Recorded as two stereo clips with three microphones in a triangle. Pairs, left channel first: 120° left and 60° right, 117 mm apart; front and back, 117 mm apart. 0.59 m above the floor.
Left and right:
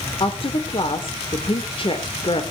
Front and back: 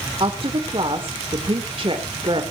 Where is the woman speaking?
150° left, 2 m.